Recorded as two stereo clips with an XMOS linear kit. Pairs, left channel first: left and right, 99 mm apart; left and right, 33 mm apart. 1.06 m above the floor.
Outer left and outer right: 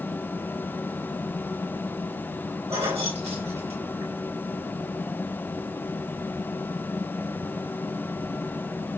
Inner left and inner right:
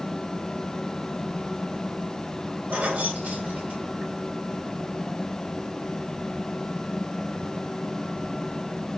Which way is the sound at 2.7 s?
80° right.